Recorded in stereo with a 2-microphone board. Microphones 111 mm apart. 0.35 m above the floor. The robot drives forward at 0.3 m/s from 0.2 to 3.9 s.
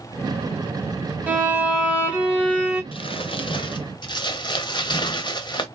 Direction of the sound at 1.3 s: 15° right (ahead or behind).